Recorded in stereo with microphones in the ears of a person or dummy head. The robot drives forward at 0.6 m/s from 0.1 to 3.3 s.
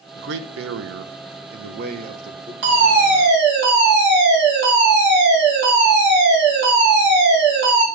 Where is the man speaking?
60° right (ahead or behind), 1.0 m; by 2.5 s 40° right (ahead or behind), 1.3 m.